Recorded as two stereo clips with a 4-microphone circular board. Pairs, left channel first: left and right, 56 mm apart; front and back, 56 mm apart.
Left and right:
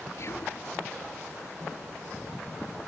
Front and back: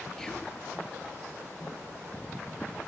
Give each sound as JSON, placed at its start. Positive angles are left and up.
{"t": 0.2, "sound": "whispering", "azimuth_deg": 75, "distance_m": 2.5}